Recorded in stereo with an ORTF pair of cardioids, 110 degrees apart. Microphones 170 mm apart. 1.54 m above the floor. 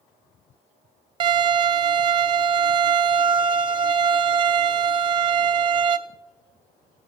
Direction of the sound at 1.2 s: 30° right.